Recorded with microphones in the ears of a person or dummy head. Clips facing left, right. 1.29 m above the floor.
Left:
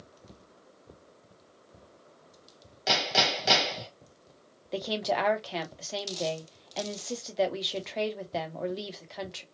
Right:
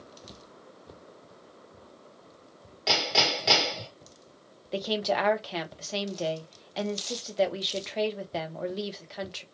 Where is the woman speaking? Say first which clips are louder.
Right 2 dB; centre (ahead or behind), 0.7 m.